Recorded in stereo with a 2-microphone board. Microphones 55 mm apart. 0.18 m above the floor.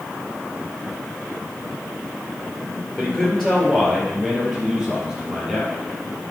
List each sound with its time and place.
3.0 s a man speaking: 5° left (ahead or behind), 2.5 m; by 5.7 s 5° right (ahead or behind), 4 m